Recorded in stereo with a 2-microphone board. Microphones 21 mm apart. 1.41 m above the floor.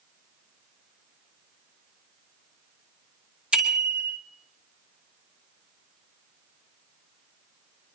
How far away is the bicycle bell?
About 3 m.